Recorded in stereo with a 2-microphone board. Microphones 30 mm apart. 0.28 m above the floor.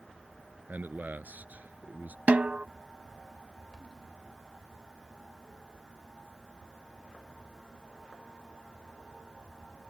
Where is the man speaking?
75° right (ahead or behind); by 2.2 s 65° right (ahead or behind).